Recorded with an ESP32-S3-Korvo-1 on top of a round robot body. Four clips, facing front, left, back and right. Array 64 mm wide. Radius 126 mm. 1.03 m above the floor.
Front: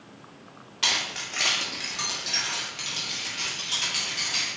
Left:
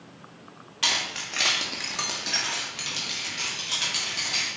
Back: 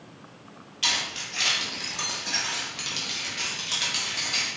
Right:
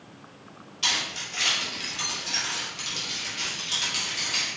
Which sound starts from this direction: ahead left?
Keys jangling, at 0.8 s.